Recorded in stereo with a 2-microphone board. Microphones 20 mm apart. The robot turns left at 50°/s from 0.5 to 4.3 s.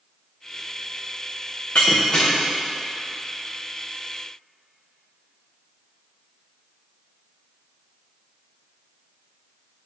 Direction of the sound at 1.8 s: 70° left (ahead or behind).